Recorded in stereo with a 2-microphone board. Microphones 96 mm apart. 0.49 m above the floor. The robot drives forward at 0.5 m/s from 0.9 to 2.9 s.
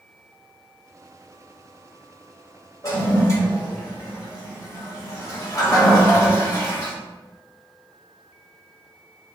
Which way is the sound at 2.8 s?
40° left (ahead or behind).